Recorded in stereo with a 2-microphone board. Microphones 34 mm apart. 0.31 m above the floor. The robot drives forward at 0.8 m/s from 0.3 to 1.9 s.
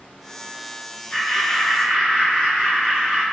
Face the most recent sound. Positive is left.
turn(degrees=15)  # may be behind; listen again after turning